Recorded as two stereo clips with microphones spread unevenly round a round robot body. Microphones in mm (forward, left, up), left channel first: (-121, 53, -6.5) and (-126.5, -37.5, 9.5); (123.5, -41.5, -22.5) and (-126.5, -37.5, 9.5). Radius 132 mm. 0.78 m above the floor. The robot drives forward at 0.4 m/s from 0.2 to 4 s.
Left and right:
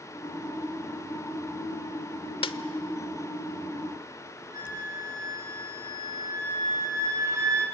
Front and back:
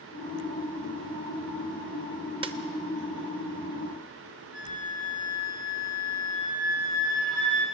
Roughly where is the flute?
Behind right.